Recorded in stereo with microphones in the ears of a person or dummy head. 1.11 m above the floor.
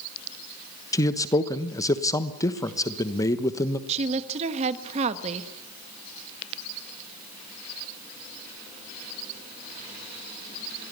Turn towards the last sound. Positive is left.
turn(degrees=-40)  # may be behind; listen again after turning